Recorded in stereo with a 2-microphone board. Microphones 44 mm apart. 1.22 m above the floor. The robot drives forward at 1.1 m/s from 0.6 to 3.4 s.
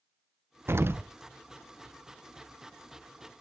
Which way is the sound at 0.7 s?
70° right (ahead or behind).